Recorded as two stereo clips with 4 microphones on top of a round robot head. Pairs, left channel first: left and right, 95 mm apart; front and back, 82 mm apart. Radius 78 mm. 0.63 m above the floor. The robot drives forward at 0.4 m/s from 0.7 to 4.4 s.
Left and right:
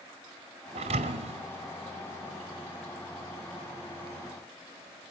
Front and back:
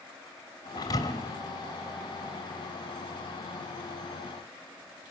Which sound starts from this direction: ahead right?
A thud, at 0.8 s.